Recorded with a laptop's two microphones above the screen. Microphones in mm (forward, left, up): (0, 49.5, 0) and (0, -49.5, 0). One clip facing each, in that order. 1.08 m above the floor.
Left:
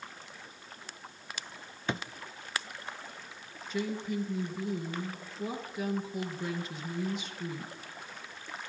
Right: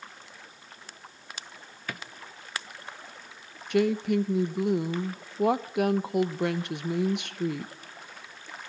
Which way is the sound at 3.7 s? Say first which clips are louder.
Right 10 dB; 70° right (ahead or behind).